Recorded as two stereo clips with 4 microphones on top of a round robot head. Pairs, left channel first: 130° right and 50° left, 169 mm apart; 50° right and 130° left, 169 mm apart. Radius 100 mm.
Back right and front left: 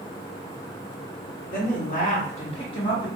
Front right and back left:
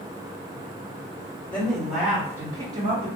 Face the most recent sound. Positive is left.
turn(degrees=170)